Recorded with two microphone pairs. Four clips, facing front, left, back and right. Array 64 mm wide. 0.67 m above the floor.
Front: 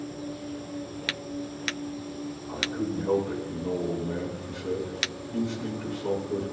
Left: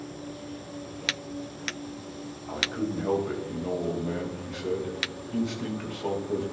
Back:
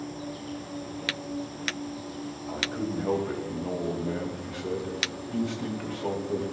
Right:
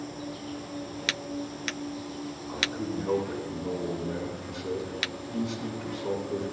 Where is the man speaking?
140° left, 4.5 m.